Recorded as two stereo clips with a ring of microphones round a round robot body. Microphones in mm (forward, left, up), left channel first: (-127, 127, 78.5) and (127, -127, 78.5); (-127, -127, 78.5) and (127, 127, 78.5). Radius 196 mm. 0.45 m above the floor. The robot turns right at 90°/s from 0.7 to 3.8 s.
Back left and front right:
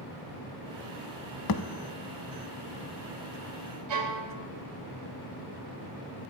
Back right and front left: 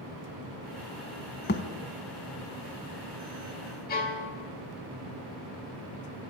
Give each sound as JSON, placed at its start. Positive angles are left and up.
{"t": 1.5, "sound": "a thud", "azimuth_deg": 160, "distance_m": 0.5}
{"t": 3.9, "sound": "a violin", "azimuth_deg": -70, "distance_m": 1.9}